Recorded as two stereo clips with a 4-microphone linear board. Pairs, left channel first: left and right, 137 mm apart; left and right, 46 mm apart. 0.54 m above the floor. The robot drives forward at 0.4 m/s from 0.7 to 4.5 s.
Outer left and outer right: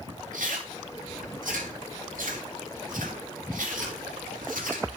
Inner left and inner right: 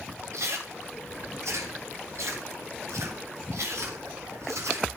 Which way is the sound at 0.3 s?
75° right (ahead or behind).